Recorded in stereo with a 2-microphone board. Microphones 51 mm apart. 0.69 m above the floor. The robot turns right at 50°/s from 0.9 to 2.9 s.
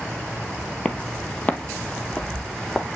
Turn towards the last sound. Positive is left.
turn(degrees=-10)  # may be behind; listen again after turning